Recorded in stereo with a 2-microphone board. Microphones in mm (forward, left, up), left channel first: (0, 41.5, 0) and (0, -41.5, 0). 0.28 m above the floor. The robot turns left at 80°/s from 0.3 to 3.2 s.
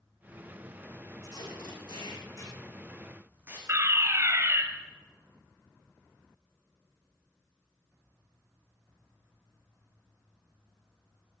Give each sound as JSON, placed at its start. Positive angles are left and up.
{"t": 1.2, "sound": "tape being pulled", "side_deg": 45, "distance_m": 7.5}
{"t": 3.7, "sound": "a fire alarm", "side_deg": -35, "distance_m": 2.5}